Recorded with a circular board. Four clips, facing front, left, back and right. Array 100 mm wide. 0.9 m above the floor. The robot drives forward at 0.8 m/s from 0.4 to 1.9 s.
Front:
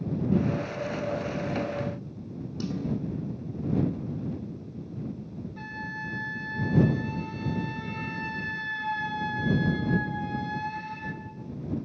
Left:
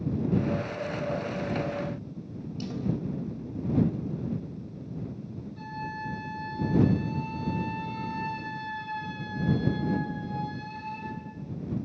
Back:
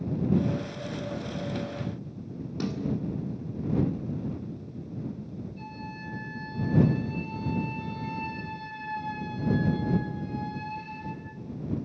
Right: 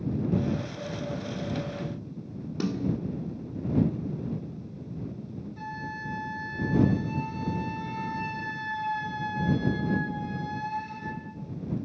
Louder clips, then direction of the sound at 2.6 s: Right 4 dB, back 1 dB; 115° right.